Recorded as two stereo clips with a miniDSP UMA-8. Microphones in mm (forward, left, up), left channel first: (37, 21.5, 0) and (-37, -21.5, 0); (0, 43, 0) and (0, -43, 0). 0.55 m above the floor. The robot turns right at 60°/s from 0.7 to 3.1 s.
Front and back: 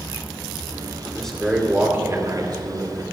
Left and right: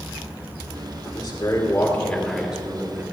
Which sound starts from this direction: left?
A man speaking, at 1.1 s.